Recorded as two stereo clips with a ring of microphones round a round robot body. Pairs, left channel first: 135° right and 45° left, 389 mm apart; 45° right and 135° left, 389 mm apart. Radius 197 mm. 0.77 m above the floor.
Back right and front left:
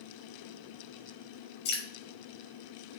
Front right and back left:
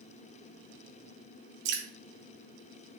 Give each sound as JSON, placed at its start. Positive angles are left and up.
{"t": 1.6, "sound": "dripping", "azimuth_deg": 160, "distance_m": 1.1}